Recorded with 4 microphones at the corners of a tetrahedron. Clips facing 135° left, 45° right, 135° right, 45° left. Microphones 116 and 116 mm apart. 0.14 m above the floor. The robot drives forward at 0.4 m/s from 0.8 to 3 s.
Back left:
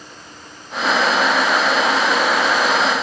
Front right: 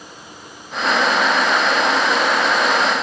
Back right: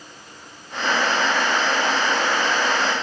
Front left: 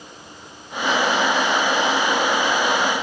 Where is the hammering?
I don't hear hammering.